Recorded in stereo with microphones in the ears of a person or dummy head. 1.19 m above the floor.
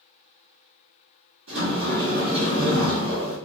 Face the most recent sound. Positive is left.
turn(degrees=-55)  # may be behind; listen again after turning